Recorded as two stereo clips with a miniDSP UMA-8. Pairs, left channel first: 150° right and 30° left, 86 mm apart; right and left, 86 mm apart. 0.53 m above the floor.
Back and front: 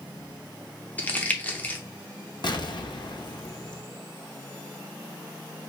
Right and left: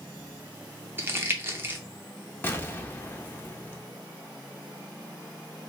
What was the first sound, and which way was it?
Crumpling, 145° left.